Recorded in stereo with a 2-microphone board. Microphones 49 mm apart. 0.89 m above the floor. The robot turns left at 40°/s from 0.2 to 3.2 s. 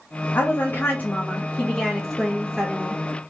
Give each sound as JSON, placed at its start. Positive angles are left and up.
{"t": 0.3, "sound": "a woman speaking", "azimuth_deg": 85, "distance_m": 0.7}